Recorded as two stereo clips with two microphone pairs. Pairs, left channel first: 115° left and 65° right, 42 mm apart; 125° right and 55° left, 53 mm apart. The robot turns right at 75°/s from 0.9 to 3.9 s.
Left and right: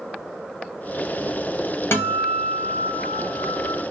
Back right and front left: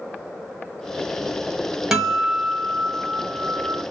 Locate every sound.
1.9 s a guitar: 135° left, 1.1 m; by 3.8 s 80° right, 1.1 m